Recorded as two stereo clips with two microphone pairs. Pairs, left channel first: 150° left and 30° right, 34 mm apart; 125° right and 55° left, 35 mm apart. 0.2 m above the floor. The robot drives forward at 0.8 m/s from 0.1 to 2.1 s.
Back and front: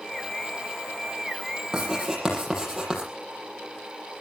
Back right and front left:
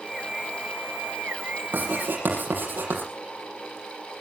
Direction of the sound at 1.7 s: 45° left.